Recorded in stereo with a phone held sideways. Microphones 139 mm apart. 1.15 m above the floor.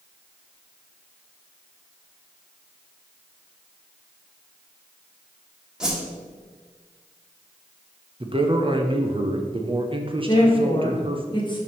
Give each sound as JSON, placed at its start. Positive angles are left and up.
{"t": 5.8, "sound": "a whoosh", "side_deg": -5, "distance_m": 1.4}
{"t": 8.2, "sound": "a man speaking", "side_deg": -40, "distance_m": 0.8}
{"t": 10.3, "sound": "a woman speaking", "side_deg": 35, "distance_m": 1.7}